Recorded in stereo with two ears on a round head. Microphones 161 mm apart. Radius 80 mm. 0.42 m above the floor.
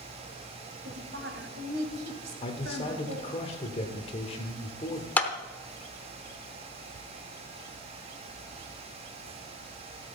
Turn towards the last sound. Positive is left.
turn(degrees=10)  # may be behind; listen again after turning